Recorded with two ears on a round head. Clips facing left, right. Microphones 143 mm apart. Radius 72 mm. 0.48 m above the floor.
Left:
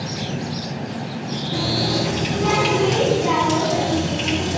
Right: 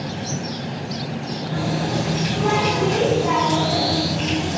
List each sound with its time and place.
1.5 s a running tap: 20° left (ahead or behind), 3.5 m